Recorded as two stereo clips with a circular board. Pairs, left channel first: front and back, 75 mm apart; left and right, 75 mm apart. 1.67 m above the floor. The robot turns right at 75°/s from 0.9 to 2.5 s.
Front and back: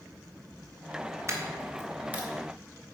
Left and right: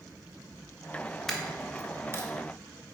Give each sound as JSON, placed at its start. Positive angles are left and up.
{"t": 1.3, "sound": "a dropped coin", "azimuth_deg": 175, "distance_m": 1.5}